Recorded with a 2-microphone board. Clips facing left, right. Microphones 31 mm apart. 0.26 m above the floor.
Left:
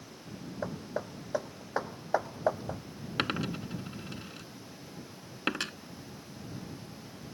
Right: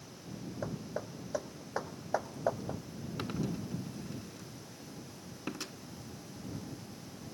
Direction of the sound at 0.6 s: 20° left (ahead or behind).